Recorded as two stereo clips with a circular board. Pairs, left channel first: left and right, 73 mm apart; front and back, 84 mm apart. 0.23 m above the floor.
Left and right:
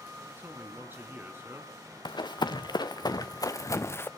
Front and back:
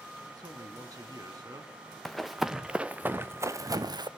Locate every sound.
0.3 s a man speaking: 145° right, 2.5 m
2.0 s running footsteps: 85° left, 1.4 m; by 4.1 s 150° left, 1.0 m